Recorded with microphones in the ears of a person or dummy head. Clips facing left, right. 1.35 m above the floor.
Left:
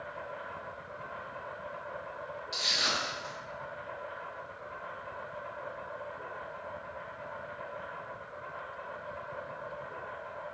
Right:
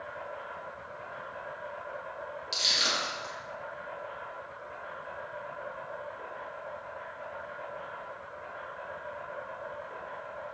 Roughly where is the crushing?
Right.